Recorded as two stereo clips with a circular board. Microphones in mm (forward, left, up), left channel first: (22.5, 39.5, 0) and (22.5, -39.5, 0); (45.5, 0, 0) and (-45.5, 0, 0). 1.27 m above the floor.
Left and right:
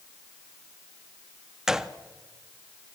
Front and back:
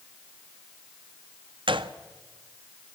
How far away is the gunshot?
About 1.1 m.